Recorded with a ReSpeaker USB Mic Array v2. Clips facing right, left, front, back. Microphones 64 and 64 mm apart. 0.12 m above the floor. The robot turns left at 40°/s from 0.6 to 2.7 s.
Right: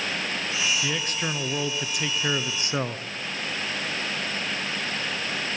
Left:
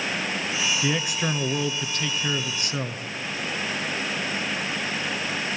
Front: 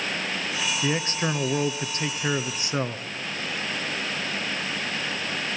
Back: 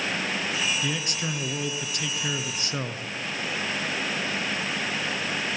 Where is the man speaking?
25° left, 1.2 m; by 3.0 s 50° right, 1.2 m.